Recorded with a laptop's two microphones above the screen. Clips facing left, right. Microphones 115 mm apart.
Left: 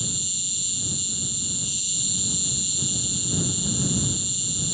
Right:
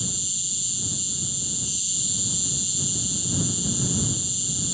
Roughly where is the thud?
No thud in this recording.